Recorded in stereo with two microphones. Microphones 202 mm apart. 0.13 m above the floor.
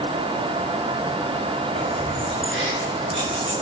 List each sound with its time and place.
1.8 s keys jangling: 65° right (ahead or behind), 5.5 m; by 3.5 s 80° right, 6.5 m